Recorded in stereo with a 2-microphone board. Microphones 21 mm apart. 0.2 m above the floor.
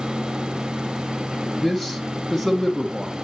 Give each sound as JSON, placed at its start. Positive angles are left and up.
{"t": 1.6, "sound": "a man speaking", "side_deg": 20, "distance_m": 1.4}